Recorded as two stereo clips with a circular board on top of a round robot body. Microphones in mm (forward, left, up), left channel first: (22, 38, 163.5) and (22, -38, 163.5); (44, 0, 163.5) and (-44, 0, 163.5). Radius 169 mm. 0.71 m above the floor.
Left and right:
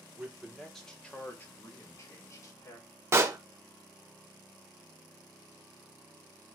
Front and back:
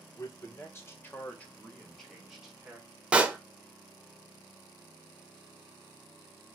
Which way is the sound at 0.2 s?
20° right.